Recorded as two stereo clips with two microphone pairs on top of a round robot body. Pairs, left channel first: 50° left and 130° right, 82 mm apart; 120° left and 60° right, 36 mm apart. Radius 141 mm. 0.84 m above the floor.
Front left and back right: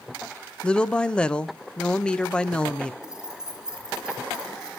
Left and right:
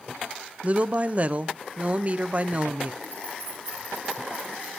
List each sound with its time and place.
0.6 s a woman speaking: 20° right, 0.8 m
3.0 s keys jangling: 45° right, 2.5 m